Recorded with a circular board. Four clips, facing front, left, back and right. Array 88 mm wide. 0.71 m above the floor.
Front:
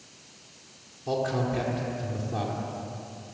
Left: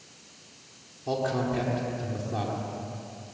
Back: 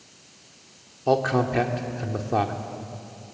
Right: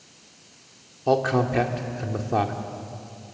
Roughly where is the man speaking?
Behind right.